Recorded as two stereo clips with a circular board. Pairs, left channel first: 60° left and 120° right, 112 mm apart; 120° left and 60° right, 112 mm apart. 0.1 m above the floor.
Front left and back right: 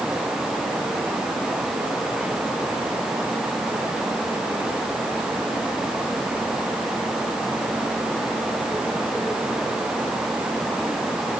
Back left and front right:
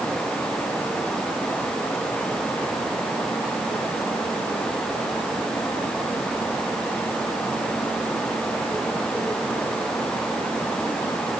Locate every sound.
Only background noise.